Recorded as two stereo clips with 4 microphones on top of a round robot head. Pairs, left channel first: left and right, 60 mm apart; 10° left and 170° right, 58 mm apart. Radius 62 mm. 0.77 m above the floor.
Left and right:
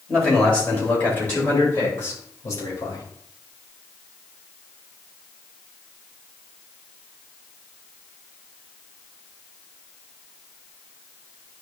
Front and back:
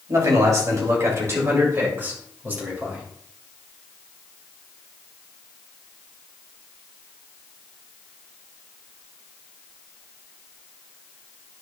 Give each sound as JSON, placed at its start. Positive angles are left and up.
{"t": 0.1, "sound": "a man speaking", "azimuth_deg": 165, "distance_m": 3.0}